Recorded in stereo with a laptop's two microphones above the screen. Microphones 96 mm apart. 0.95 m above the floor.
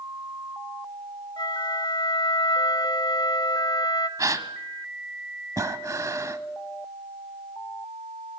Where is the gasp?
40° right (ahead or behind), 1.1 m.